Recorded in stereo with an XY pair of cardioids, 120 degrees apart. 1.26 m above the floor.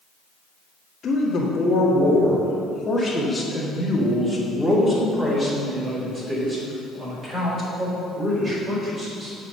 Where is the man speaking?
40° left, 1.9 m; by 9.3 s 35° right, 4.5 m.